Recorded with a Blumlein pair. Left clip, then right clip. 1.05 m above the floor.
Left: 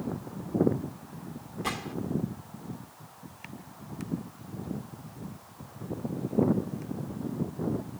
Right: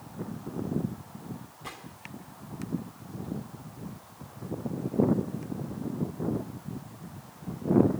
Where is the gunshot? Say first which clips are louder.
Left 10 dB; 25° left.